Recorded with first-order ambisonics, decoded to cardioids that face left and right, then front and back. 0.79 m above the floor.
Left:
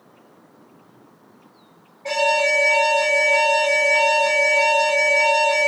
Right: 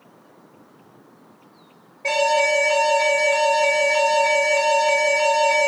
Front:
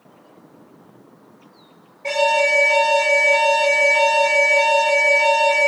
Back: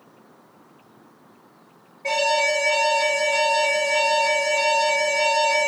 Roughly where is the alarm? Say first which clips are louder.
Even, front 3 dB; right.